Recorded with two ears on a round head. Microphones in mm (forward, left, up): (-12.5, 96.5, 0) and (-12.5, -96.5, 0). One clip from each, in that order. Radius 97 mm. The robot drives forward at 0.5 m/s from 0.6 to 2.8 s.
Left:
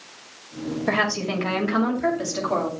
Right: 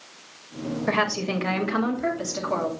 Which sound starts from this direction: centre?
A woman speaking, at 0.9 s.